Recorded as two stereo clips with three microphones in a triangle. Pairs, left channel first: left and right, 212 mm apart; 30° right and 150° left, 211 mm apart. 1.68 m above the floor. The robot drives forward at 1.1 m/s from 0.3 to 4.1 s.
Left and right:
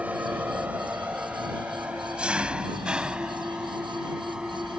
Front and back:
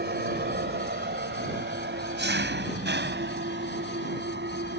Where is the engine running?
170° right; by 4.8 s 175° right.